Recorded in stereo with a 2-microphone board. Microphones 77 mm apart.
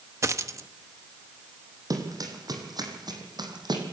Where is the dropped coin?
40° right (ahead or behind), 1.0 m.